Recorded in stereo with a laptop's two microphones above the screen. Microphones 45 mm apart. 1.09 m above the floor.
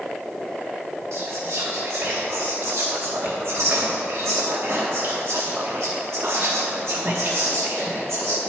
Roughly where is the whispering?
Right.